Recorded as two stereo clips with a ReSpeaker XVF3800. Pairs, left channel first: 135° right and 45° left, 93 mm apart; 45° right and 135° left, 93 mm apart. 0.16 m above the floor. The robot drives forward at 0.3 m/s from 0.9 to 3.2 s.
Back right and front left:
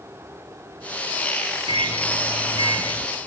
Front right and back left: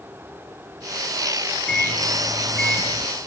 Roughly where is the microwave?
Ahead left.